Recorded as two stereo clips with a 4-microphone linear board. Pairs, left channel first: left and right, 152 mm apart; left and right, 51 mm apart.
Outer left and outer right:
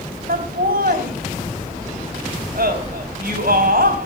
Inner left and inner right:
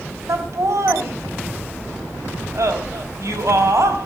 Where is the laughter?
75° right (ahead or behind), 4 m.